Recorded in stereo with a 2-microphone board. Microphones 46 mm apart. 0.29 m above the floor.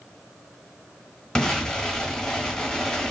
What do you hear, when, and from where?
1.4 s an explosion: 15° left (ahead or behind), 1.3 m